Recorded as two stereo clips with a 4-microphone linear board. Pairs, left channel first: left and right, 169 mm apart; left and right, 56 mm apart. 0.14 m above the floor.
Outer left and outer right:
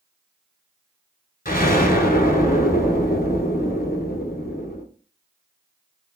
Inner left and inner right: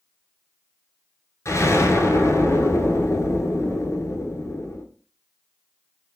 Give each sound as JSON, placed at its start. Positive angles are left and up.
{"t": 1.4, "sound": "an explosion", "side_deg": 60, "distance_m": 0.9}